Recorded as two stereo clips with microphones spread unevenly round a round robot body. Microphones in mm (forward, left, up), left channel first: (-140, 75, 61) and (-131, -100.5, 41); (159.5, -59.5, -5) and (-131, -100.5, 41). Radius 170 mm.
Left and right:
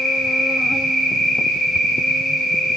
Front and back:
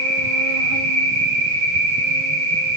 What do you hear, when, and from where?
0.0 s an insect: 175° right, 0.9 m